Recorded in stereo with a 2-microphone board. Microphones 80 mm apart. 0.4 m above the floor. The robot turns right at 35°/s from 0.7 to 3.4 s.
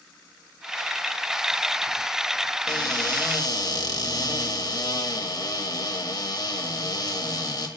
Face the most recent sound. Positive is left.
turn(degrees=55)  # may be behind; listen again after turning